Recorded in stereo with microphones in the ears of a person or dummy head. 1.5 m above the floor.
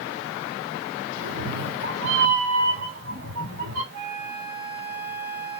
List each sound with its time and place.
1.2 s a cat meowing: 45° right (ahead or behind), 2.5 m; by 3.8 s 75° right (ahead or behind), 3 m
3.9 s a flute: 65° right (ahead or behind), 1.9 m